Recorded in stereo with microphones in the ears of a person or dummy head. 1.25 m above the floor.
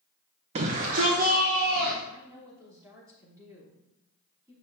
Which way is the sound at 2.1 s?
15° right (ahead or behind).